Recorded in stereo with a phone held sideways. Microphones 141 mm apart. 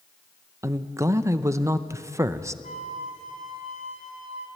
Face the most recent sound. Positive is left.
turn(degrees=70)  # may be behind; listen again after turning